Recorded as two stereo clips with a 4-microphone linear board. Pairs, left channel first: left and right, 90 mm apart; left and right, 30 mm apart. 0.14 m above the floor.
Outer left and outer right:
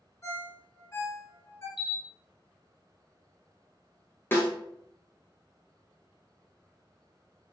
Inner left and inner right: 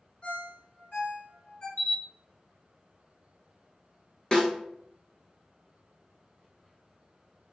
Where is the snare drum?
25° left (ahead or behind), 0.9 m.